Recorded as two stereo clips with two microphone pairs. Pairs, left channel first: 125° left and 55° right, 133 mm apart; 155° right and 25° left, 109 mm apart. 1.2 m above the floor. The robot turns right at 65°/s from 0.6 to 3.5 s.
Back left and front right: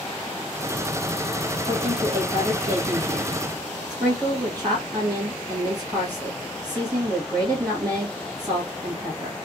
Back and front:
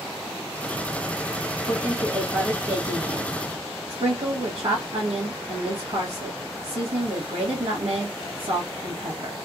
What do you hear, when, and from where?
1.7 s a woman speaking: 115° right, 1.4 m; by 9.3 s 5° left, 1.4 m